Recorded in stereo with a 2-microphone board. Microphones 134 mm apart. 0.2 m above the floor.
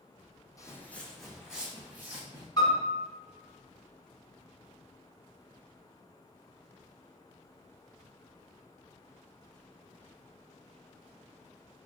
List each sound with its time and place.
0.6 s footsteps: 25° left (ahead or behind), 0.6 m; by 2.5 s 15° right (ahead or behind), 1.5 m
2.6 s a piano: 30° left (ahead or behind), 1.4 m